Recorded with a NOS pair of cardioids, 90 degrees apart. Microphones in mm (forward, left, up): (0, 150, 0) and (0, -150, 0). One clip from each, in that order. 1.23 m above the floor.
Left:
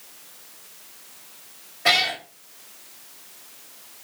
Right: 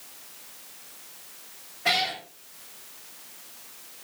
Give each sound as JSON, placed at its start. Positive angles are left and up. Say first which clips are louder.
{"t": 1.9, "sound": "a cat meowing", "louder": "left 5 dB", "azimuth_deg": 45, "distance_m": 3.5}